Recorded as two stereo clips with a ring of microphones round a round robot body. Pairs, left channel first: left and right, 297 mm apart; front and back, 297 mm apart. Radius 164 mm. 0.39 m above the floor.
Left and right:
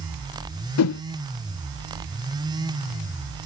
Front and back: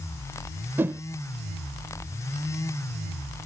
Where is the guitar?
No guitar in this recording.